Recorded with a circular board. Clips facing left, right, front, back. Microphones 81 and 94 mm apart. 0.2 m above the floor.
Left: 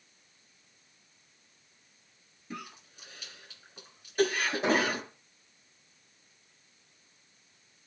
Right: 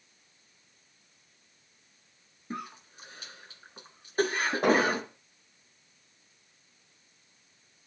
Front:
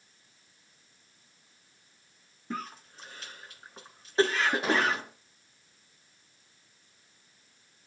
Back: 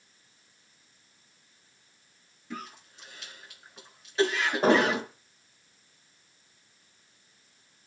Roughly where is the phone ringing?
I don't hear a phone ringing.